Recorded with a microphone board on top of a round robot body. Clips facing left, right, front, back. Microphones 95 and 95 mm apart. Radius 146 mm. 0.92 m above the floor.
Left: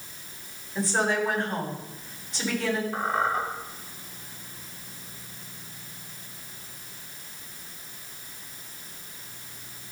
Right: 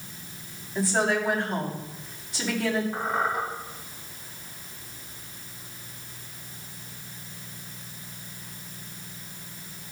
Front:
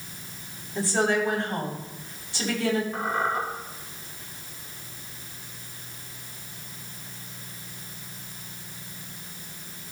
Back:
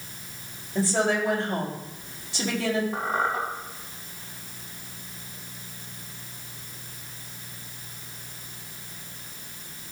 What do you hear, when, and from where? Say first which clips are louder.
0.8 s a woman speaking: right 1 dB, even; straight behind, 5 m
2.9 s a squeak: left 1 dB, even; 175° right, 3.5 m